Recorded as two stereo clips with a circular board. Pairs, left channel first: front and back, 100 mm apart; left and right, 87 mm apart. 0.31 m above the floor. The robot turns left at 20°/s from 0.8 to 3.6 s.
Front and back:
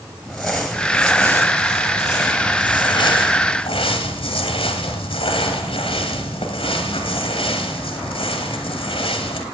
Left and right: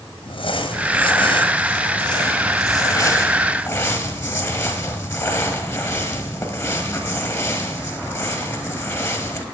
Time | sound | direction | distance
0.2 | crumpling | 85° left | 1.2 m